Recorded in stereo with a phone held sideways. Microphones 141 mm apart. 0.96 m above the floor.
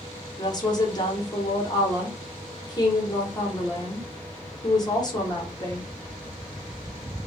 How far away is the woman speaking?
About 0.8 m.